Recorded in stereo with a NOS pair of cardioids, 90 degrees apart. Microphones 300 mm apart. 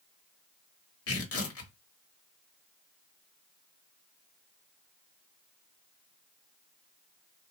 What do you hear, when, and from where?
1.1 s tearing paper: 55° left, 1.3 m